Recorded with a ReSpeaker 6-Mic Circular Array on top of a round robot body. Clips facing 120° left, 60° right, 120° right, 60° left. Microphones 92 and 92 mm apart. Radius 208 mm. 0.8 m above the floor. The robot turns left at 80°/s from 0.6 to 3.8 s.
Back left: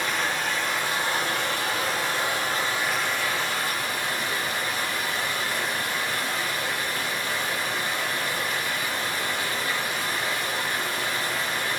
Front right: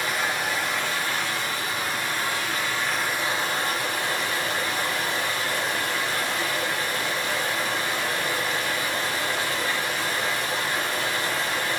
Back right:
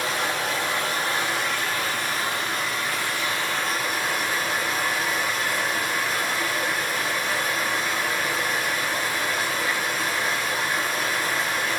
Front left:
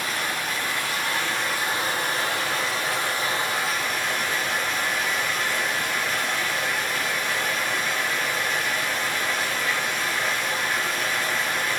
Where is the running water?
145° right, 3 m; by 11.8 s 40° right, 3 m.